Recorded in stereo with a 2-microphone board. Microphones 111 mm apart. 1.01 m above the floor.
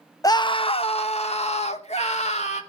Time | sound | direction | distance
0.2 | a scream | 35° left (ahead or behind) | 0.5 m